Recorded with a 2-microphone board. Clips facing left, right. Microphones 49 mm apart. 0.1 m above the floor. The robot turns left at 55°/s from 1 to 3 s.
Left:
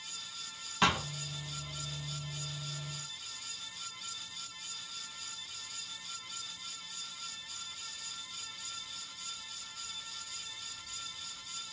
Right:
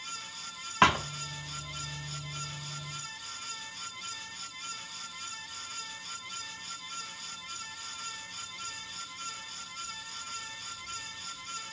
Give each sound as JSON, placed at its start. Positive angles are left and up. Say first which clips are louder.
{"t": 0.8, "sound": "a thud", "louder": "right 6 dB", "side_deg": -40, "distance_m": 0.8}